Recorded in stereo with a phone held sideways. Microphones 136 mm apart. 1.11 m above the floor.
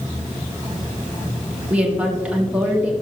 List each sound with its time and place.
1.7 s a woman speaking: 10° right (ahead or behind), 1.9 m